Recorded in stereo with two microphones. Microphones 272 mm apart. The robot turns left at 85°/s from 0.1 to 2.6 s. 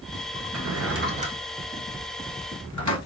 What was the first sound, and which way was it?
A drawer, 80° right.